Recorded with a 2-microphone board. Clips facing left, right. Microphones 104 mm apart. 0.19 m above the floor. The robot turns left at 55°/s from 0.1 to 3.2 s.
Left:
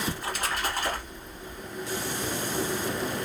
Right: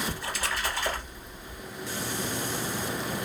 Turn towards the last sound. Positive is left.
turn(degrees=-50)